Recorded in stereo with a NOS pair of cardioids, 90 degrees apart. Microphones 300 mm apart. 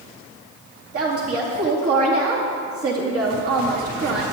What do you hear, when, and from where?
0.9 s a woman speaking: 50° right, 2.5 m